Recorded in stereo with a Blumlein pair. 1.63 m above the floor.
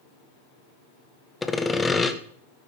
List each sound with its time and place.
1.4 s sawing: 10° left, 1.3 m